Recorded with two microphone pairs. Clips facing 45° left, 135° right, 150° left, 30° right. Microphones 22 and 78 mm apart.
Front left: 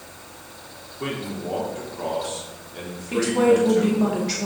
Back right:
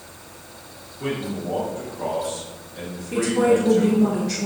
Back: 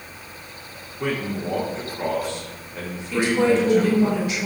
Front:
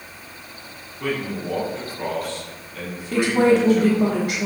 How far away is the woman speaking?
About 2 m.